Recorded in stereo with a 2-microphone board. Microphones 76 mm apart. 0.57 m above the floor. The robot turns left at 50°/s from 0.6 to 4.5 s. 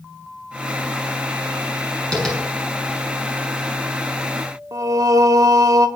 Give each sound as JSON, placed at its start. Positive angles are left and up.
{"t": 2.1, "sound": "tapping", "side_deg": 10, "distance_m": 6.0}
{"t": 4.7, "sound": "singing", "side_deg": -50, "distance_m": 0.9}